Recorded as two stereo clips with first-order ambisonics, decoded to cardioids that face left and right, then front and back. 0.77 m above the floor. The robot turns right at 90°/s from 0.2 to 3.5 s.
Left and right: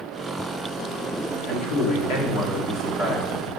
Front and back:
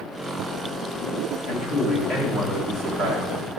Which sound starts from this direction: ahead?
A man speaking, at 1.5 s.